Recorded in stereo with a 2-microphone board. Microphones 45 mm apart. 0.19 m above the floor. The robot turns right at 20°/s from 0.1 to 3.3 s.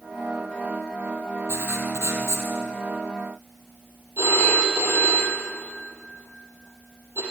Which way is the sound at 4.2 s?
65° right (ahead or behind).